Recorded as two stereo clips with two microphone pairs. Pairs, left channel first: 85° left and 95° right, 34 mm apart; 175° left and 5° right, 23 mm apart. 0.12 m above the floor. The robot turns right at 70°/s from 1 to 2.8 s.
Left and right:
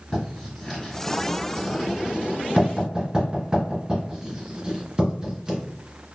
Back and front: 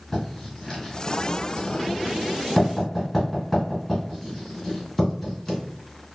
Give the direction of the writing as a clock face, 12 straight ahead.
8 o'clock.